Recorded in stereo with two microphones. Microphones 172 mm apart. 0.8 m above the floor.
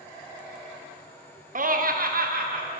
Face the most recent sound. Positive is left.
turn(degrees=-60)  # may be behind; listen again after turning